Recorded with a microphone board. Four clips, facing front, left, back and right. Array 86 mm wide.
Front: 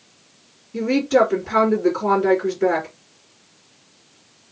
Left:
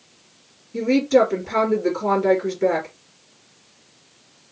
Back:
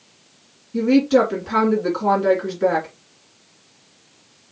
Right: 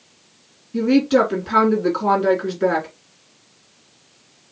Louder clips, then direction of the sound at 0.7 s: Right 1 dB, back 2 dB; 105° right.